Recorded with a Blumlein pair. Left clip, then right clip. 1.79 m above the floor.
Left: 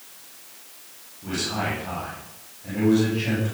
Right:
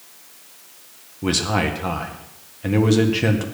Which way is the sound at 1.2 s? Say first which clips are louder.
Right 6 dB; 50° right.